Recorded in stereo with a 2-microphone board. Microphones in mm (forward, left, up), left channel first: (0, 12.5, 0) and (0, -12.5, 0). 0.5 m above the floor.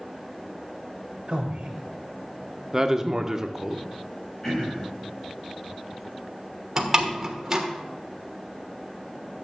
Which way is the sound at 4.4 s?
35° left (ahead or behind).